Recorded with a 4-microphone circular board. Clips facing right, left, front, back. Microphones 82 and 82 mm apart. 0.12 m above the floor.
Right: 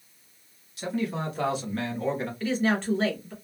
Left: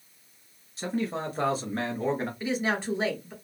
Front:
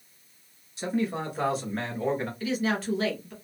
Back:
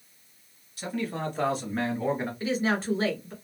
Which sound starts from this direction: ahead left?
A man speaking, at 0.8 s.